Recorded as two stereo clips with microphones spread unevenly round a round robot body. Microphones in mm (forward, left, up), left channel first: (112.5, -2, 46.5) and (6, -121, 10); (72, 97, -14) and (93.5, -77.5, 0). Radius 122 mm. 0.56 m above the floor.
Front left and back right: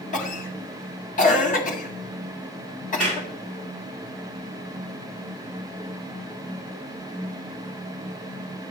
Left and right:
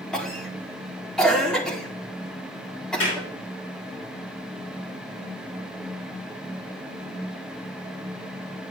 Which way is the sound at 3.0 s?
145° left.